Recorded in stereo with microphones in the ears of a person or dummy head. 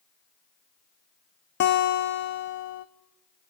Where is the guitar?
55° left (ahead or behind), 1.3 m.